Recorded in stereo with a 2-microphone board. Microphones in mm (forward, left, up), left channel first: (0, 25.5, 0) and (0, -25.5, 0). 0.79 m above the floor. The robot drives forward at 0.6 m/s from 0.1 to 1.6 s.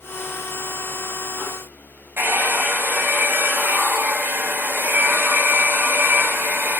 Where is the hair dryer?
50° right (ahead or behind), 4 m.